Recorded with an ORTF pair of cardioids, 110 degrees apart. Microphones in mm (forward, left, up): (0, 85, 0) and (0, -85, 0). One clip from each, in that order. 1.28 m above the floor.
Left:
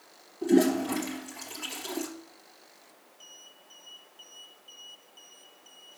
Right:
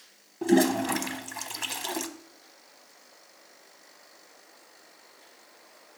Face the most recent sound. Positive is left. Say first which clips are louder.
# right 1 dB
turn(degrees=-60)